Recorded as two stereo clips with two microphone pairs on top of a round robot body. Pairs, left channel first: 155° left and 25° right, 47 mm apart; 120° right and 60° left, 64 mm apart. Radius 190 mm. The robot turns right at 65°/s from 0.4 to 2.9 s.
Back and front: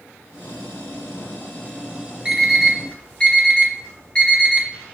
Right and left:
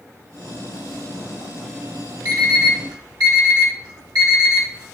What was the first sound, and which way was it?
An alarm clock, 40° left.